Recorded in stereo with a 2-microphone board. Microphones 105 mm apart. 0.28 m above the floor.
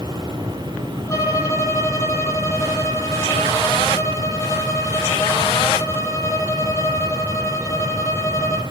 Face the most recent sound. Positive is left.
turn(degrees=30)  # may be behind; listen again after turning